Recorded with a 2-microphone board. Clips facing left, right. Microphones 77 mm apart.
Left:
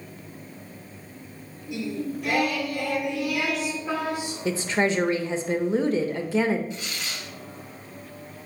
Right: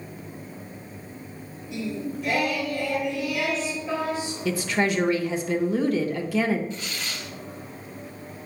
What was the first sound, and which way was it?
Singing, 60° left (ahead or behind).